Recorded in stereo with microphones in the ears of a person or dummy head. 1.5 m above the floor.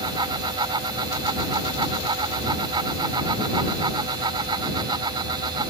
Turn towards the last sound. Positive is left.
turn(degrees=-30)  # may be behind; listen again after turning